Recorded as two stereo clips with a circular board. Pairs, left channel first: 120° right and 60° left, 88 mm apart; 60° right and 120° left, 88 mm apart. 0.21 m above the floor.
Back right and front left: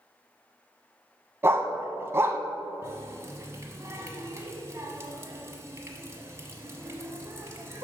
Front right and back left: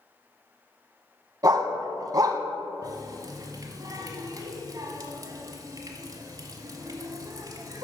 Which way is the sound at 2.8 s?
100° left.